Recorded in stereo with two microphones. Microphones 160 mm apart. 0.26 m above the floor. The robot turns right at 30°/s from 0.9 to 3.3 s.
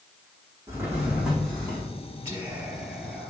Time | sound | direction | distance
0.7 | a drawer | 15° right (ahead or behind) | 6 m
2.2 | whispering | 20° right | 4.5 m